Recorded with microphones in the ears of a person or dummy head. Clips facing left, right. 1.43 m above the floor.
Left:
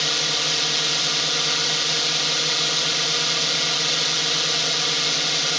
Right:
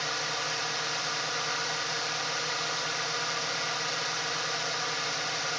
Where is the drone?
45° left (ahead or behind).